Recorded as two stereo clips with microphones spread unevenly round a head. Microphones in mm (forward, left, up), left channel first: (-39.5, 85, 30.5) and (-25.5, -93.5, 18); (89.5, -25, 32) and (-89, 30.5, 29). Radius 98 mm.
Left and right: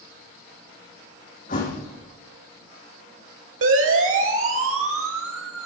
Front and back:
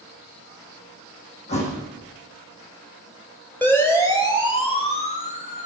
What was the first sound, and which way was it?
A thud, 40° left.